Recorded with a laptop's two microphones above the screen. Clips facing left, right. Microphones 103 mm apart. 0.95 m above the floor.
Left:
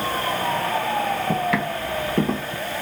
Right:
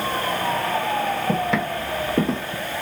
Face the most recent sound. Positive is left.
turn(degrees=5)  # may be behind; listen again after turning